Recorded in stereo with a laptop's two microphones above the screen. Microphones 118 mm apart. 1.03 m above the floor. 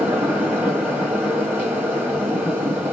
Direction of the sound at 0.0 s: 15° right (ahead or behind).